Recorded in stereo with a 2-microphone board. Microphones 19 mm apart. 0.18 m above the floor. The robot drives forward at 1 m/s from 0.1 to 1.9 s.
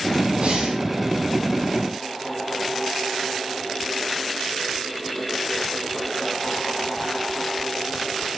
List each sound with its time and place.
0.4 s breathing: 80° right, 4.5 m